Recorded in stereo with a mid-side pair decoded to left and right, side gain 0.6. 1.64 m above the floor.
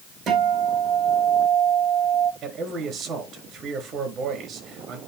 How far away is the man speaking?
About 4.5 m.